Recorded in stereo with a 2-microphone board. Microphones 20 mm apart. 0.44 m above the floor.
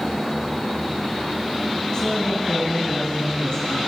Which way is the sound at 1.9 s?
40° left (ahead or behind).